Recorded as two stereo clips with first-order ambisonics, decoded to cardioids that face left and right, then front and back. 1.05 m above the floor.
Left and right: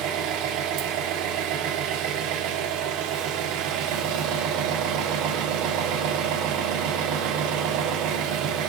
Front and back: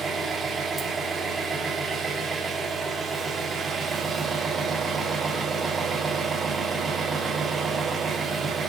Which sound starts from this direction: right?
An engine running, at 0.0 s.